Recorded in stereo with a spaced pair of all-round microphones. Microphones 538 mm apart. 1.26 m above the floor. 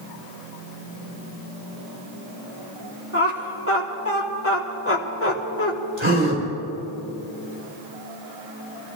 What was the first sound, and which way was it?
Laughter, 25° left (ahead or behind).